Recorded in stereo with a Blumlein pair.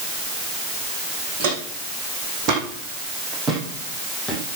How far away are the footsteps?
About 6 m.